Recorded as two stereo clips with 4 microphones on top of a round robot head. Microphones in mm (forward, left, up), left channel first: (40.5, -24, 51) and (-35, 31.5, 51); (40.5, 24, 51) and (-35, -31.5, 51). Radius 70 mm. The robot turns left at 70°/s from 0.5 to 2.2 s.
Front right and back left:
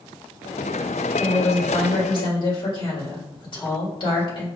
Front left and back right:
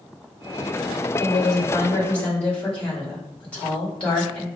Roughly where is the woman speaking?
Ahead left.